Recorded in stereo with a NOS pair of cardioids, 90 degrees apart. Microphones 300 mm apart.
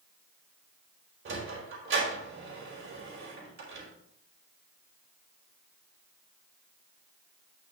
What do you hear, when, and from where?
1.2 s a sliding door: 40° right, 4 m